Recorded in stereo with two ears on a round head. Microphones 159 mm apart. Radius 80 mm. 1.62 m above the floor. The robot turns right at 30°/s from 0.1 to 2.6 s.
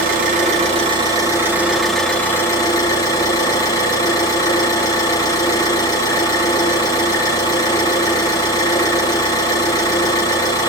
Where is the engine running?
55° right, 2.5 m; by 10.7 s 20° left, 2.5 m.